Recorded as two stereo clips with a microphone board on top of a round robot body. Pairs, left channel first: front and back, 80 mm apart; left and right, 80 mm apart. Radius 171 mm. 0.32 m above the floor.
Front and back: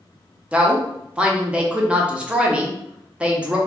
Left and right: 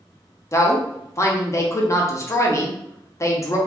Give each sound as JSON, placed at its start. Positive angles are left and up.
{"t": 0.5, "sound": "a woman speaking", "azimuth_deg": 110, "distance_m": 1.0}